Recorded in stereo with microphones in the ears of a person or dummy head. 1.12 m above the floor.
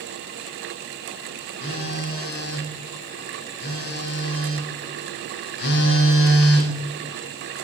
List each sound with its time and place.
1.6 s a phone buzzing: 65° left (ahead or behind), 1.3 m